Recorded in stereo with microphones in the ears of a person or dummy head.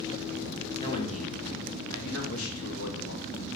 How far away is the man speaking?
About 2 m.